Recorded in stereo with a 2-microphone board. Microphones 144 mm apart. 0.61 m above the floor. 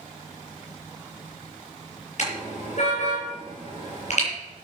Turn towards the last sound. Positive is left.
turn(degrees=55)  # may be behind; listen again after turning